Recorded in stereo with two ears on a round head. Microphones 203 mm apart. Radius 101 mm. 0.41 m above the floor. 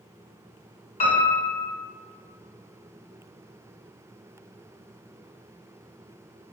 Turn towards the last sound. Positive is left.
turn(degrees=30)  # may be behind; listen again after turning